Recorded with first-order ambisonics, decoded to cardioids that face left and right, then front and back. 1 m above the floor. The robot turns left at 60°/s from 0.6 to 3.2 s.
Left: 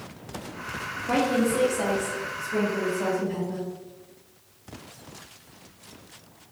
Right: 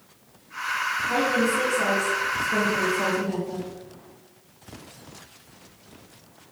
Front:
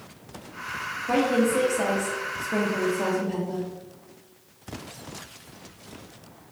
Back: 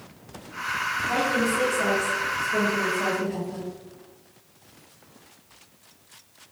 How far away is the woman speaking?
About 0.7 m.